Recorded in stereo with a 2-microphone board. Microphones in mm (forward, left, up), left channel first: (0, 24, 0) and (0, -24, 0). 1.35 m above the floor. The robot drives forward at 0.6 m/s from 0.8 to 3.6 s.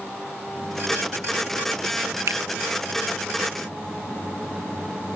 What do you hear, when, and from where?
2.3 s a finger snap: 85° right; by 2.4 s 80° right